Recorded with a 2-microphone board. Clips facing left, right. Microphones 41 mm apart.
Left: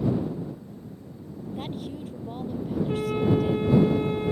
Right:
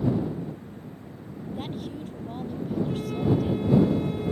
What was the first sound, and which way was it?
A woman speaking, 5° left (ahead or behind).